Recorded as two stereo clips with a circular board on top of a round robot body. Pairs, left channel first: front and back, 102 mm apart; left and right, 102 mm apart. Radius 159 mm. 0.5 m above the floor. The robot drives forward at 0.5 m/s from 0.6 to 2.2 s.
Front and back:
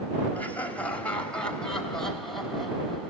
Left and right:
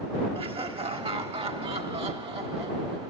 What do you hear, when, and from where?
0.3 s laughter: 75° right, 4 m; by 3.1 s 85° right, 4 m